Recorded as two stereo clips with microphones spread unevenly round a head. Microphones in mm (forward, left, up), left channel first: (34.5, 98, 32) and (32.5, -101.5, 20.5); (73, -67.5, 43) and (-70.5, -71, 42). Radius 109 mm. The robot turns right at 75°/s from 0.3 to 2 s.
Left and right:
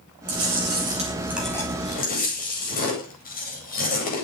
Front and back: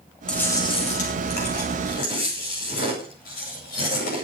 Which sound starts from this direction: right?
Chewing, at 0.3 s.